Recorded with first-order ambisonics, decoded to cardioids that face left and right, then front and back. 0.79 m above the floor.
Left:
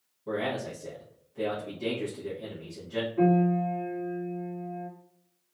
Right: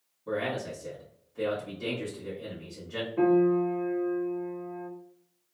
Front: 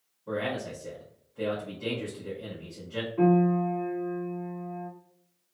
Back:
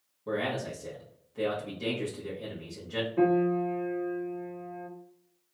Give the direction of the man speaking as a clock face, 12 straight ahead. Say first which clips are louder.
Even, even; 6 o'clock.